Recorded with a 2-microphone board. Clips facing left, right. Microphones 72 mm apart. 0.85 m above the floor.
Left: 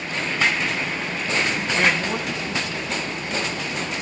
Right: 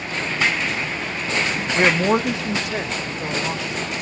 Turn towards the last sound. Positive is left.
turn(degrees=-80)